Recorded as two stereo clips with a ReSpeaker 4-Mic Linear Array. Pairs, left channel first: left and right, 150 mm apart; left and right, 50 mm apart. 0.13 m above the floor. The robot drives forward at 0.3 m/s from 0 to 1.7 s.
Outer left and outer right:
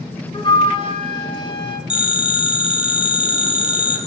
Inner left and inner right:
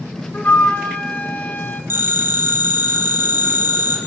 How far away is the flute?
About 1.4 m.